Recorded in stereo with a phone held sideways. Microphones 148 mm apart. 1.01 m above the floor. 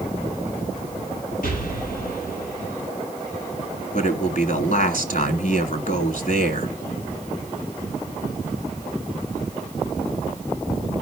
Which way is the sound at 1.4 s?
75° left (ahead or behind).